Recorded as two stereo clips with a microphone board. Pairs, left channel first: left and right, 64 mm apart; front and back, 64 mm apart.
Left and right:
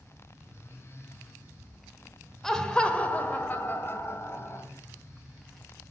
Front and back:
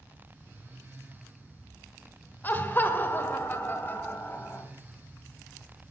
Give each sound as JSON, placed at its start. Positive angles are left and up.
{"t": 2.4, "sound": "laughter", "azimuth_deg": 15, "distance_m": 1.4}